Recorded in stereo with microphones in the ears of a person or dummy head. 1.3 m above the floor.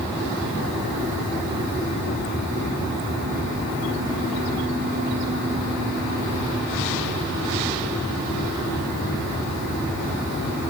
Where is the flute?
I don't hear a flute.